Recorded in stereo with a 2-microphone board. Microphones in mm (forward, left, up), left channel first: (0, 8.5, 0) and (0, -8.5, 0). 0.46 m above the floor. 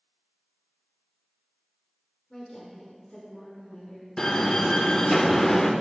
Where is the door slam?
30° left (ahead or behind), 0.6 m.